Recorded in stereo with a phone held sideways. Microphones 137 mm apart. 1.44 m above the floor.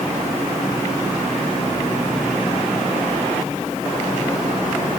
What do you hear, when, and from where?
Only background noise.